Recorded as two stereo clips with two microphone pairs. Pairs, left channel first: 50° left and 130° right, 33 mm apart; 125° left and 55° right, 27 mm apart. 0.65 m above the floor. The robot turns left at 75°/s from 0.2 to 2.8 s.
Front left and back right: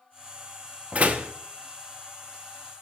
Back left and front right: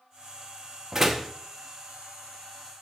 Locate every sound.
0.9 s a door slam: 120° right, 0.8 m; by 1.3 s 150° right, 0.8 m